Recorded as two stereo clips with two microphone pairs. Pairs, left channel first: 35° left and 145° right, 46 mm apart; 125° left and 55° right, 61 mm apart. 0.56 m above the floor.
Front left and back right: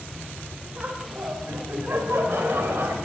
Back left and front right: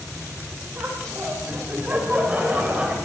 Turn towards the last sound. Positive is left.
turn(degrees=-120)